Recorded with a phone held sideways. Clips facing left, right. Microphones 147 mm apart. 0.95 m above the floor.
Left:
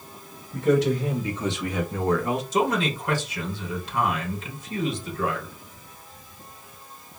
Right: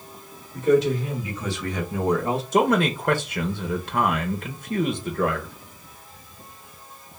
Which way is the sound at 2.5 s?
55° right (ahead or behind).